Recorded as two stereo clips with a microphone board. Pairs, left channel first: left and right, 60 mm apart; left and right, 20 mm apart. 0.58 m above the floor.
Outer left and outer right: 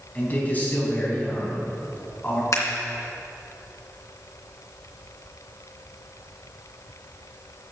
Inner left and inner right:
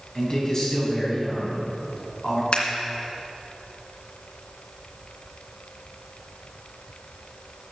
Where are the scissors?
60° left (ahead or behind), 3 m.